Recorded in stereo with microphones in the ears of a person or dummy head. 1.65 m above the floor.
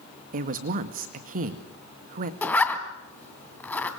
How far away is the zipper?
About 3 m.